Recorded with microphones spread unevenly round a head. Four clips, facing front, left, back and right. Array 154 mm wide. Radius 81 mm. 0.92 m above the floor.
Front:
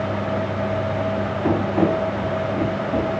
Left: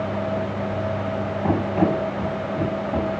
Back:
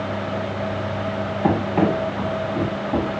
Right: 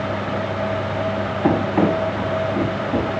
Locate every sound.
1.4 s running footsteps: 140° right, 3.5 m; by 3.2 s 160° right, 3 m